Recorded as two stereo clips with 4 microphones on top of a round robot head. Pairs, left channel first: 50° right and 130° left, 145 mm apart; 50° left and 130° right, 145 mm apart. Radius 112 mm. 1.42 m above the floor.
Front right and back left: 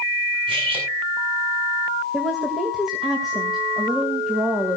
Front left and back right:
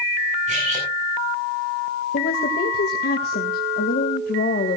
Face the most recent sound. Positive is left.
turn(degrees=40)